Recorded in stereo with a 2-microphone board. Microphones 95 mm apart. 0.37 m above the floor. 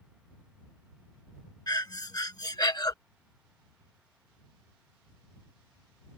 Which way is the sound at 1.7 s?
40° left (ahead or behind).